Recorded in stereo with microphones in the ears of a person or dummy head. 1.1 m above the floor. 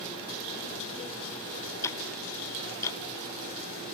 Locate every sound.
1.8 s ticking: 20° left (ahead or behind), 1.1 m